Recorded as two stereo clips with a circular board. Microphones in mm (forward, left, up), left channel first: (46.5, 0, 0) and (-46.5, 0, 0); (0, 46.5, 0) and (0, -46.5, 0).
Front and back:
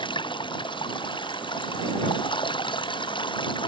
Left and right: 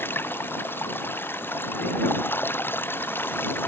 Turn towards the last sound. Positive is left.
turn(degrees=25)